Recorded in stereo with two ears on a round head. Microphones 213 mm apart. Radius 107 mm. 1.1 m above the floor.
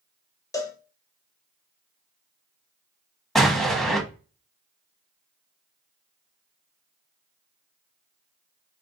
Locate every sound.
0.5 s a cowbell: 15° left (ahead or behind), 0.8 m
3.4 s an explosion: centre (ahead or behind), 1.0 m